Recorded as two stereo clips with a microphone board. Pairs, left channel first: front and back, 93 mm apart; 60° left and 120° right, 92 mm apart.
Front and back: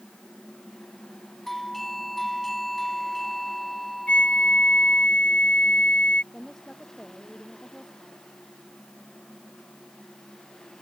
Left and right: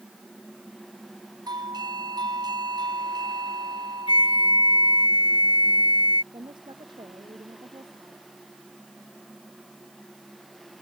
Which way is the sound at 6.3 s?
85° right.